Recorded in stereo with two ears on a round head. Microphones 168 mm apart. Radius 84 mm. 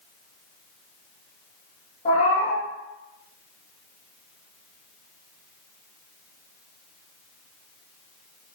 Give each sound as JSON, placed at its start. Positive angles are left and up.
{"t": 2.0, "sound": "a cat meowing", "side_deg": 30, "distance_m": 1.4}